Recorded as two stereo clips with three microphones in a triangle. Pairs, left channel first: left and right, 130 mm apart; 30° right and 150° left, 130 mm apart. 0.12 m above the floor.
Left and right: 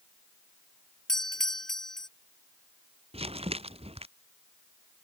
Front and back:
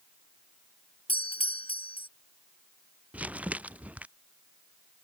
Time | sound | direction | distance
1.1 | a doorbell | 5° left | ?
3.1 | crumpling | 130° right | ?